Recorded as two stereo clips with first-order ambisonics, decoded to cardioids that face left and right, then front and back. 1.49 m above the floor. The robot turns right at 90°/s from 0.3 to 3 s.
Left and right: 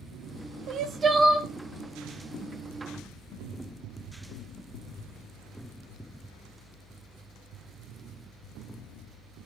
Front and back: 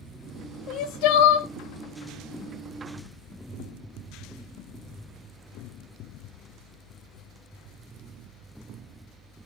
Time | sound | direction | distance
0.7 | crying | 50° right | 0.5 m